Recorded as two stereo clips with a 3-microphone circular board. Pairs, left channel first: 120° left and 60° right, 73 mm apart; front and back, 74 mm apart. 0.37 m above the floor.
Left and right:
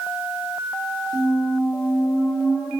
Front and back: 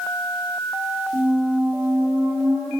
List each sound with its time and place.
1.1 s a squeak: straight behind, 2.5 m